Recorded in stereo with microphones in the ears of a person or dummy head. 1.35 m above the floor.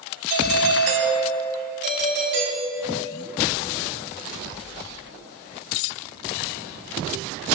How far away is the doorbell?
About 1.9 m.